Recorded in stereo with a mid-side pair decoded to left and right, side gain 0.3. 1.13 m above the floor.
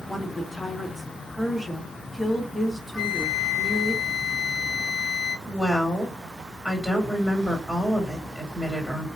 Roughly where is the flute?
Ahead.